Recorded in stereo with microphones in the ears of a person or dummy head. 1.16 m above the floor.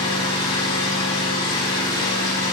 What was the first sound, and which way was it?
An engine running, 30° left (ahead or behind).